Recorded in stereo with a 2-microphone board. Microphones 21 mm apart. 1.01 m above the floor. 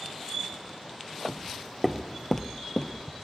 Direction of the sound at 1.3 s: 20° right (ahead or behind).